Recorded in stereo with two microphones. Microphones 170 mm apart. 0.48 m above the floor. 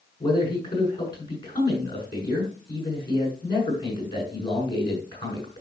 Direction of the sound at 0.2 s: 25° left (ahead or behind).